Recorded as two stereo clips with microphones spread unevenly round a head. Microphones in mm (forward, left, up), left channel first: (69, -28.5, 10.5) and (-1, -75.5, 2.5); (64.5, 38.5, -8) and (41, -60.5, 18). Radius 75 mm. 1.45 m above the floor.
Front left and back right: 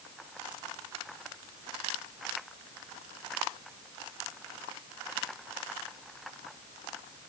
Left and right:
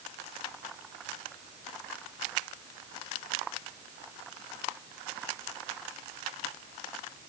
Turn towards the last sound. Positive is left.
No sound to turn to.